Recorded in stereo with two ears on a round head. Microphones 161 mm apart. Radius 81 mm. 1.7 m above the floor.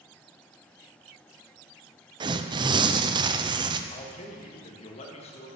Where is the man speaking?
35° left (ahead or behind), 1.8 m.